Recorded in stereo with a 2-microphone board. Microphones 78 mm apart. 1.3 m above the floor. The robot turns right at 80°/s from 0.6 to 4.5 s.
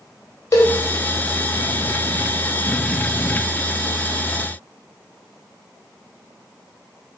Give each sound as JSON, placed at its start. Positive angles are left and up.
{"t": 0.5, "sound": "a cowbell", "side_deg": 45, "distance_m": 0.7}